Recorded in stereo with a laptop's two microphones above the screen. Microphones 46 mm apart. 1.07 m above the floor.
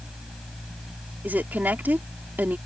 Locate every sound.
0.0 s a fan: 5° right (ahead or behind)
1.2 s a woman speaking: 45° right (ahead or behind)